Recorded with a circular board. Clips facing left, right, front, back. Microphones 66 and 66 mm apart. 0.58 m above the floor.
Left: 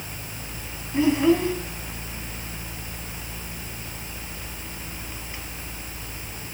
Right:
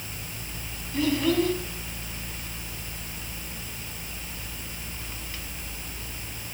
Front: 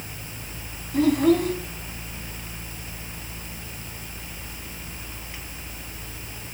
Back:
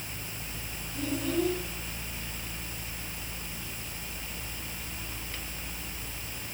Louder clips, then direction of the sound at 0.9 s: Left 4 dB, front 12 dB; 20° left.